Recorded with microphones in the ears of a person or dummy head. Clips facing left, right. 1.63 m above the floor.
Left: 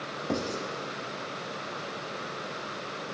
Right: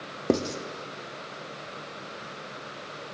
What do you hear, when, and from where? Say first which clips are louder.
0.3 s writing: right 6 dB; 55° right (ahead or behind), 0.6 m